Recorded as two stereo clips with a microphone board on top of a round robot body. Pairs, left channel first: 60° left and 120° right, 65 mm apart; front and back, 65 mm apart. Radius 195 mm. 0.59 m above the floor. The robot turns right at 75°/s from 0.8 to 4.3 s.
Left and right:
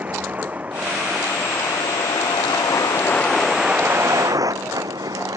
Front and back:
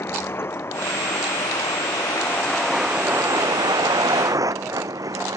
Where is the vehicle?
50° right; by 5.4 s 150° right.